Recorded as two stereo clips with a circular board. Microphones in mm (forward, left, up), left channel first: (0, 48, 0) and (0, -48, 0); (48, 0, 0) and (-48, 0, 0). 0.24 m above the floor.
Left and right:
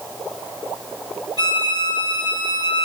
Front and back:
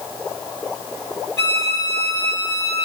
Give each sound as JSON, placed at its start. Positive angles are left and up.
{"t": 1.4, "sound": "a violin", "azimuth_deg": 55, "distance_m": 2.5}